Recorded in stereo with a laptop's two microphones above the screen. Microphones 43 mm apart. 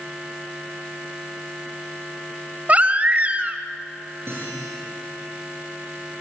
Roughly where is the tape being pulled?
I don't hear tape being pulled.